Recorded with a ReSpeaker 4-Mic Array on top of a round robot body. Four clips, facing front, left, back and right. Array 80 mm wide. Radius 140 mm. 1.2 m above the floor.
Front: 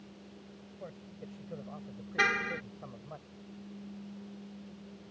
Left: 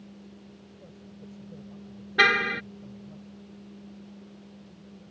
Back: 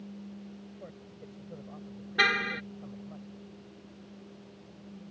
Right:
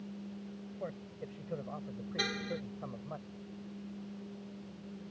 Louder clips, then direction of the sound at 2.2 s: Left 15 dB, back 2 dB; 100° left.